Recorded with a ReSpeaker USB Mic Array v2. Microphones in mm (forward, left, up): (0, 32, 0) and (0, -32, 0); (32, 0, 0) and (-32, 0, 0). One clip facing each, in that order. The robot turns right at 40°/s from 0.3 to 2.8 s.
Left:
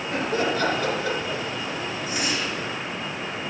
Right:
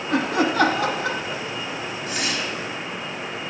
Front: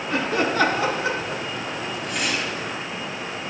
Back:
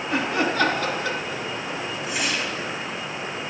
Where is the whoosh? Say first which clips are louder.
Right 1 dB, even; 100° right, 1.6 m; by 2.7 s 75° right, 1.6 m.